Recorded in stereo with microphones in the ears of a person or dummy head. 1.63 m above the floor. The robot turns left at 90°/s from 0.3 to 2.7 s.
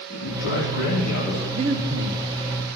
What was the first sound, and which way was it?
A man speaking, 130° left.